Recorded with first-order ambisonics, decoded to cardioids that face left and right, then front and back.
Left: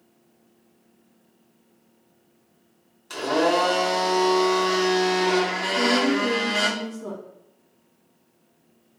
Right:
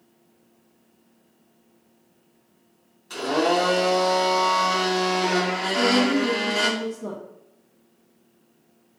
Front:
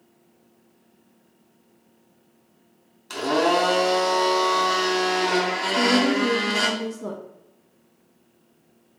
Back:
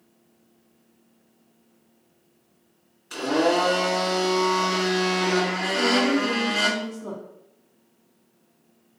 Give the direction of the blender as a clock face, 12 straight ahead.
11 o'clock.